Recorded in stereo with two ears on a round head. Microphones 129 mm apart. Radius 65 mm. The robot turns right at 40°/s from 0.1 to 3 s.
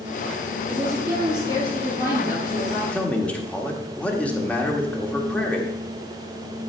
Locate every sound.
0.7 s a woman speaking: 5° right, 3 m; by 2.8 s 80° left, 3 m
2.9 s a man speaking: 5° left (ahead or behind), 1.5 m; by 5.8 s 10° left (ahead or behind), 1.5 m